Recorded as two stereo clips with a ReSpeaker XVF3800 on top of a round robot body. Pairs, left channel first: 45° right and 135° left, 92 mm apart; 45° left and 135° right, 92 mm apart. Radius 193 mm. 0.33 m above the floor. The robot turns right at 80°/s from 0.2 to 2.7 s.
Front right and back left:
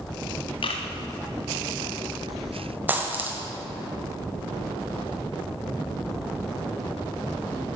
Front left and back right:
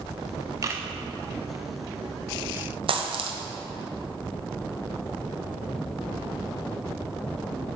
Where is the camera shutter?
80° right, 0.5 m; by 0.8 s 60° right, 0.5 m.